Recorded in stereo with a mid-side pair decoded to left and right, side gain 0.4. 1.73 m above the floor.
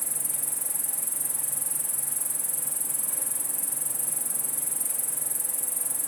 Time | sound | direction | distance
0.0 | an insect | 5° right | 0.9 m